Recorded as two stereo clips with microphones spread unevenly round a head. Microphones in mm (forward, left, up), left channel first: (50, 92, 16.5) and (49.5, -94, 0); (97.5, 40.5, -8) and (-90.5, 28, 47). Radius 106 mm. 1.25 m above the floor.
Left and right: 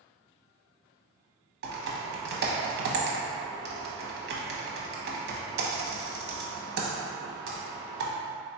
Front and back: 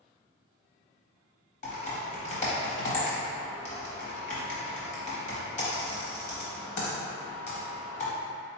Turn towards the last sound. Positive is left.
turn(degrees=-55)